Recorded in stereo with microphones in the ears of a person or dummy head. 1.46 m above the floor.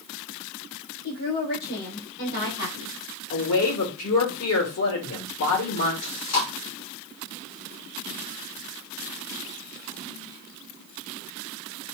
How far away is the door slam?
No door slam in this recording.